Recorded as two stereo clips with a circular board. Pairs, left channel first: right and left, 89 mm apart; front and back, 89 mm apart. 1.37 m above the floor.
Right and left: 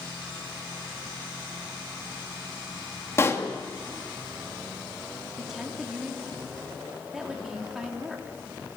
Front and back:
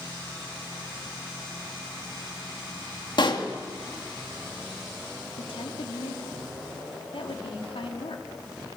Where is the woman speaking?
5° left, 3.5 m.